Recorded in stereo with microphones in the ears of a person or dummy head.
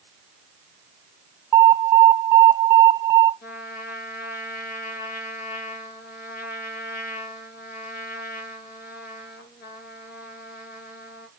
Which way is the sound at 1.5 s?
15° right (ahead or behind).